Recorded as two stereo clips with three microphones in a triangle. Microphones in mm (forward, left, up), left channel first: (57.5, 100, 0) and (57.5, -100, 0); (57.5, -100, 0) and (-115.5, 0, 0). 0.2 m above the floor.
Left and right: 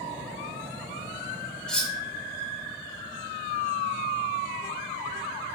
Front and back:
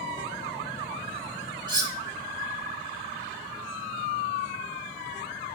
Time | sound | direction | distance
1.7 | cutlery clinking | 170° left | 0.7 m